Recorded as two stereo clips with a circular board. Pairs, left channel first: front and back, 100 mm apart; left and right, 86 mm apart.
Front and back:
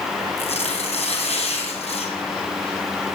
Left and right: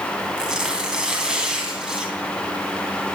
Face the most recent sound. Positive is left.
turn(degrees=-10)